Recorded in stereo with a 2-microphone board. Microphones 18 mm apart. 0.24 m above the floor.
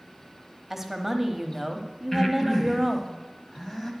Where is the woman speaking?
15° right (ahead or behind), 0.9 m.